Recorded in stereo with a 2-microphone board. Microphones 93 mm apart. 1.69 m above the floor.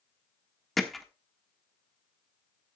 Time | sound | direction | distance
0.8 | hammering | centre (ahead or behind) | 1.3 m